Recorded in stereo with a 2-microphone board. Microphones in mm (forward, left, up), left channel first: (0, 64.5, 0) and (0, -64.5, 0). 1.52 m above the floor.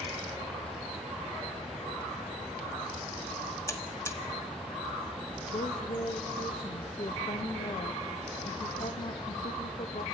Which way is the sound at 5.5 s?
55° left (ahead or behind).